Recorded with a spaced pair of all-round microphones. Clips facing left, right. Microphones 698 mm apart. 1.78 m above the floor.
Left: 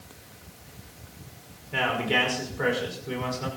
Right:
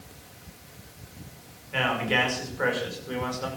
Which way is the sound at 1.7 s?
65° left (ahead or behind).